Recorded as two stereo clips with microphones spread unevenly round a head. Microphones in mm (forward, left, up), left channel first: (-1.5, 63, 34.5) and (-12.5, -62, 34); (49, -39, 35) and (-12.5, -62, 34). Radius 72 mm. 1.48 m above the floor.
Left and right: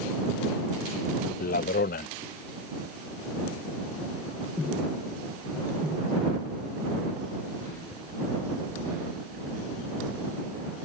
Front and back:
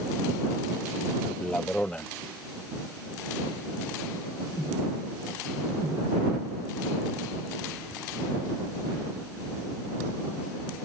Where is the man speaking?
100° left.